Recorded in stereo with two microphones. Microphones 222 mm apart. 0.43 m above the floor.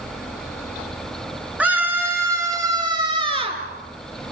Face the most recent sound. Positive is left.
turn(degrees=-25)  # may be behind; listen again after turning